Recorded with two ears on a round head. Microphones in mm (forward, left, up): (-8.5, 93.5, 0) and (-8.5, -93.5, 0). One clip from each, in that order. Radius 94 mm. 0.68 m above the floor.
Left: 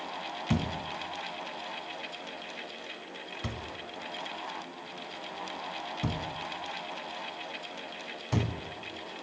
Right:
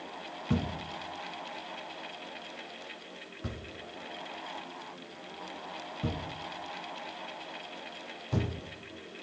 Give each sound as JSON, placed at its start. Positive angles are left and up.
{"t": 0.5, "sound": "a thud", "side_deg": 65, "distance_m": 1.6}